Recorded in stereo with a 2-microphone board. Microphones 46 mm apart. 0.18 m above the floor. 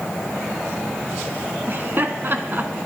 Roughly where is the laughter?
Right.